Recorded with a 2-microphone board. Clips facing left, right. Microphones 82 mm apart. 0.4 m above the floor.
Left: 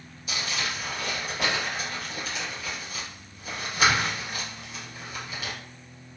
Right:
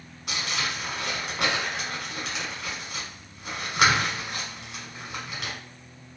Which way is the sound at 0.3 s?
80° right.